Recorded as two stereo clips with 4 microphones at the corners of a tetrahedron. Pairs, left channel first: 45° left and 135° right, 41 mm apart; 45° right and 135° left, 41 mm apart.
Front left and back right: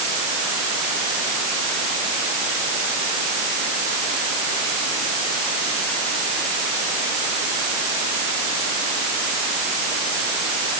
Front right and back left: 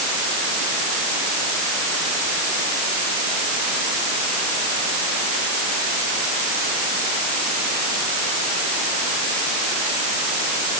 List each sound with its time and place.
Only background noise.